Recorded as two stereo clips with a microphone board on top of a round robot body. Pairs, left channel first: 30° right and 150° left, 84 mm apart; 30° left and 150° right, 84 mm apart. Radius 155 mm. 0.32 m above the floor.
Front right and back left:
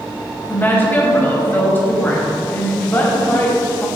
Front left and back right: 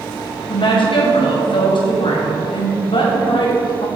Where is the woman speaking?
35° left, 2.5 m.